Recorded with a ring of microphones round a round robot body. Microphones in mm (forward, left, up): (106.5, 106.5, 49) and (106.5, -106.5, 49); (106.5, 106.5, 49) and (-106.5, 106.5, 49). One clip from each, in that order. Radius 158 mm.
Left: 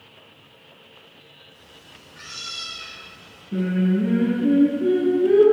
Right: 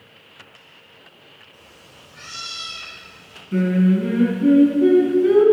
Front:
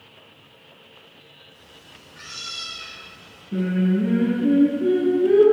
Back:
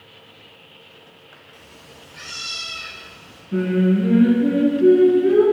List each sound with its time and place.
1.5 s a cat meowing: 150° right, 3 m; by 3.4 s 160° right, 6 m
3.5 s singing: 105° right, 2.5 m